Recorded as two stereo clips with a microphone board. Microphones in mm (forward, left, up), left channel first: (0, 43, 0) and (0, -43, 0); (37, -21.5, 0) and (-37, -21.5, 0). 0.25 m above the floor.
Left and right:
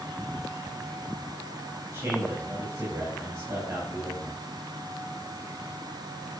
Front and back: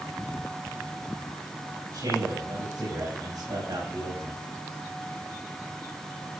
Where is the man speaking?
150° right, 6.5 m.